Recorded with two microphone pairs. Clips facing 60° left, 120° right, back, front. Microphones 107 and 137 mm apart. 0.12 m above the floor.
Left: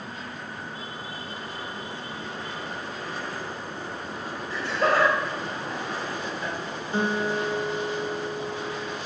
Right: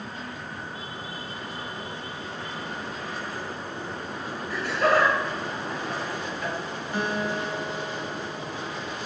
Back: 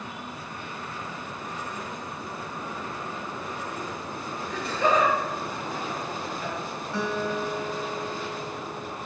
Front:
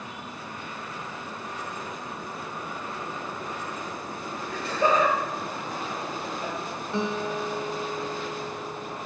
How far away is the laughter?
About 2.5 m.